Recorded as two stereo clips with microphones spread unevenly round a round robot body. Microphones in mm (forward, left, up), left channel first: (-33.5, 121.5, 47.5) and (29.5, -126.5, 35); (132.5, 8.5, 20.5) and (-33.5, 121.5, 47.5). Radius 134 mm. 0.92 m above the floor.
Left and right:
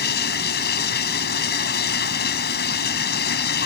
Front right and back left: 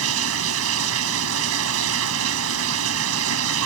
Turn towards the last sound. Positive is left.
turn(degrees=155)